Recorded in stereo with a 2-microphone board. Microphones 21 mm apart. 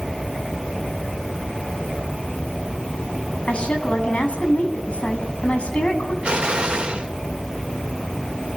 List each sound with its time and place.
3.5 s a woman speaking: 80° left, 7 m
6.2 s an explosion: 50° right (ahead or behind), 3.5 m